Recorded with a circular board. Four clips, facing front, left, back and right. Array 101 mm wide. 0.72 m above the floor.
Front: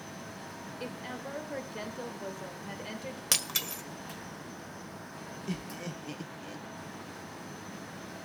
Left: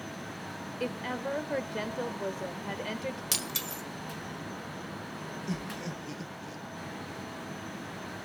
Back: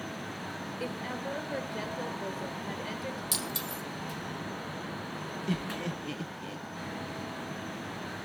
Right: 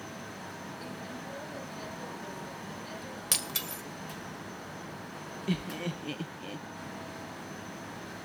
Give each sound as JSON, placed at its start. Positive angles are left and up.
{"t": 0.8, "sound": "a woman speaking", "azimuth_deg": 100, "distance_m": 2.0}
{"t": 3.3, "sound": "breaking glass", "azimuth_deg": -10, "distance_m": 1.6}
{"t": 5.5, "sound": "laughter", "azimuth_deg": -110, "distance_m": 0.7}